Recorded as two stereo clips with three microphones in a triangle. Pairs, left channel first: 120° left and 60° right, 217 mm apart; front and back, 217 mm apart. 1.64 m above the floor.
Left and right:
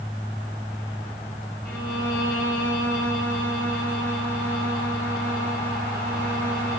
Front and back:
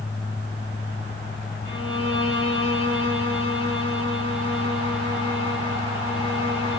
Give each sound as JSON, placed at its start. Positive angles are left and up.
{"t": 1.6, "sound": "a violin", "azimuth_deg": -155, "distance_m": 5.5}